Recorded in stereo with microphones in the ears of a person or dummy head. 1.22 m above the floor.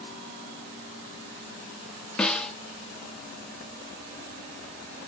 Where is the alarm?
I don't hear an alarm.